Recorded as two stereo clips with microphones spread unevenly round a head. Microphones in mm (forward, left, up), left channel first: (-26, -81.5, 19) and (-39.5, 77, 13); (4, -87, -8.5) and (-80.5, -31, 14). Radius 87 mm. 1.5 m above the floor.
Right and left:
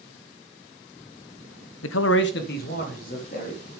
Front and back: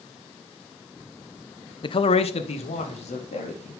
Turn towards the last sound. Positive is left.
turn(degrees=-35)